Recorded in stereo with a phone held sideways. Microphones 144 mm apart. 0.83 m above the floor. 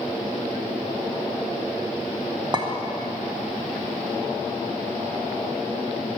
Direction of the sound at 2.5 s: 30° right (ahead or behind).